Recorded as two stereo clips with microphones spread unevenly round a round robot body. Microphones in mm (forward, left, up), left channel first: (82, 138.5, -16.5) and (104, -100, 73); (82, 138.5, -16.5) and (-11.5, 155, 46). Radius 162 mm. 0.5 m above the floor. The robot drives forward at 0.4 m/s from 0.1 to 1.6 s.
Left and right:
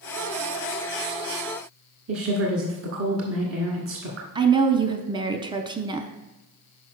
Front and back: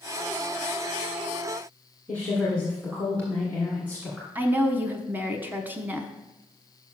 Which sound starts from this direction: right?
A woman speaking, at 2.1 s.